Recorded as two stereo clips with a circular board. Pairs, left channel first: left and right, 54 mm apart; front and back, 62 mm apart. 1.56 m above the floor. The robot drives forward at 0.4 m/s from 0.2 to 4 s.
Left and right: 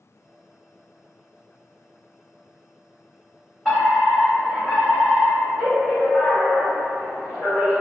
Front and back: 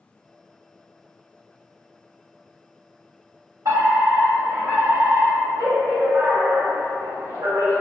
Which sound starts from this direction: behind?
A fire alarm, at 3.6 s.